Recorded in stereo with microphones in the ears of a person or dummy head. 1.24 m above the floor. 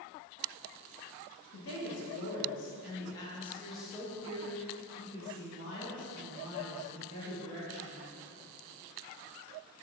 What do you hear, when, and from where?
1.5 s a woman speaking: 65° left (ahead or behind), 1.0 m; by 8.1 s 35° right (ahead or behind), 3 m